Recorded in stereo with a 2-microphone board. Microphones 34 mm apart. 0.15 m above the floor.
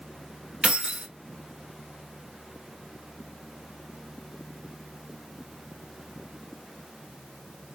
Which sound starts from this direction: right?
Keys jangling, at 0.6 s.